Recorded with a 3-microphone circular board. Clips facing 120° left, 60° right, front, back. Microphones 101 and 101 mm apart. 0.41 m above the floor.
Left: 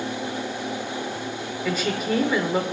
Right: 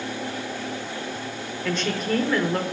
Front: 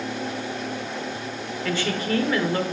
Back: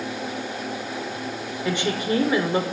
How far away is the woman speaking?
About 0.9 m.